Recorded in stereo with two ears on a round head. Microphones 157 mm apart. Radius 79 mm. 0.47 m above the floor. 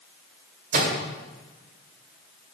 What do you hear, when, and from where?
0.7 s a microwave: 55° right (ahead or behind), 1.9 m